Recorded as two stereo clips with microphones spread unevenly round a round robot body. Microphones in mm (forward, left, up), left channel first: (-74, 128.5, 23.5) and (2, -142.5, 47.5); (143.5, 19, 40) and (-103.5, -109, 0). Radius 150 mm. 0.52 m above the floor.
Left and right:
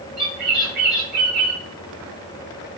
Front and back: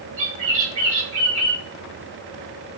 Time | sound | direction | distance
0.2 | a bird | 130° right | 2.0 m